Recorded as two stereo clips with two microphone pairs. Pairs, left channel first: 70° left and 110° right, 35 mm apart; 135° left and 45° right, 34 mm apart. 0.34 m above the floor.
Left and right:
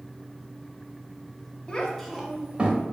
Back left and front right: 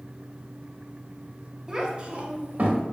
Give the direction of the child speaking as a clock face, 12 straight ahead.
11 o'clock.